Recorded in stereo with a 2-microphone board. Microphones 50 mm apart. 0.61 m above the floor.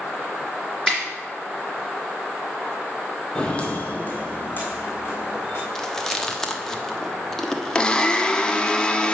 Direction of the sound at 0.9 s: 15° right (ahead or behind).